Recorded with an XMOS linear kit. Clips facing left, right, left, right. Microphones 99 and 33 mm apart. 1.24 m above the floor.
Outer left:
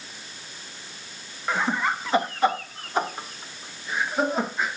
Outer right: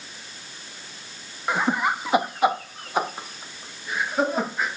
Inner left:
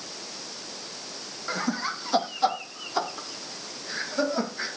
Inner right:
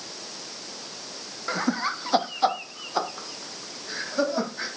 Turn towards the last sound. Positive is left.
turn(degrees=-10)  # may be behind; listen again after turning